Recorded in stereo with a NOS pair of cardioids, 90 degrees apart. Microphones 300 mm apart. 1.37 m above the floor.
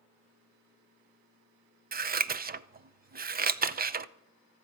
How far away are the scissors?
About 0.6 m.